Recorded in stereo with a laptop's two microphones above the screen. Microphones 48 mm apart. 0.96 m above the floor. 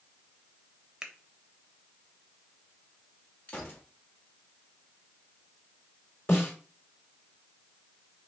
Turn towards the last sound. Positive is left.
turn(degrees=50)  # may be behind; listen again after turning